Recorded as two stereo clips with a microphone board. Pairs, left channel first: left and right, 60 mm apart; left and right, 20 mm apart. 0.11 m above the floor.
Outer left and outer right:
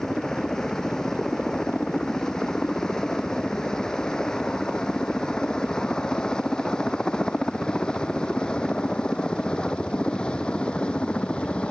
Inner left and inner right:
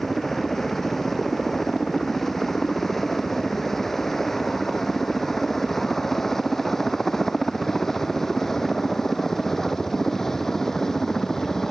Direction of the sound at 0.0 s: 10° left (ahead or behind).